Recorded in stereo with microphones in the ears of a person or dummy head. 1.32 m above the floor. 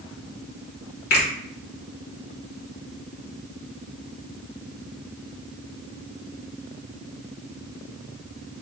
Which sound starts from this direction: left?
A finger snap, at 1.1 s.